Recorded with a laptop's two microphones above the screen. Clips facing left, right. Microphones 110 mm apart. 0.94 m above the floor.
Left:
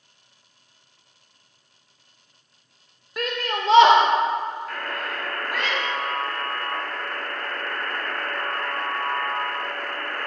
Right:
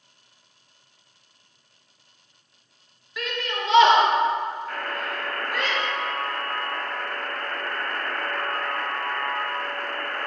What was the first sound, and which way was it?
A shout, 45° left (ahead or behind).